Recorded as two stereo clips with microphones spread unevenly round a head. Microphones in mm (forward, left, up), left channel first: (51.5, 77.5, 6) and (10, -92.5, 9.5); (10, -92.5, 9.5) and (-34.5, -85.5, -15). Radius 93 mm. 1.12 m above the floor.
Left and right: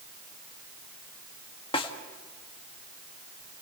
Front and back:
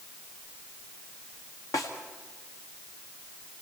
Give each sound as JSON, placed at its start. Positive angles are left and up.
{"t": 1.7, "sound": "a snare drum", "azimuth_deg": 15, "distance_m": 1.7}